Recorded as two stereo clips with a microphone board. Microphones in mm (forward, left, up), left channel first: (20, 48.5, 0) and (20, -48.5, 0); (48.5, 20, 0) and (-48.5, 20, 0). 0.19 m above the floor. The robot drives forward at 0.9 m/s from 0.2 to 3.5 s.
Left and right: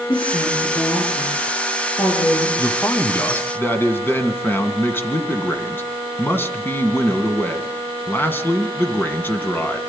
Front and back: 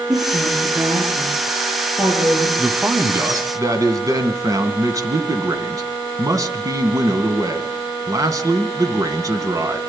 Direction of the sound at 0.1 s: 95° left.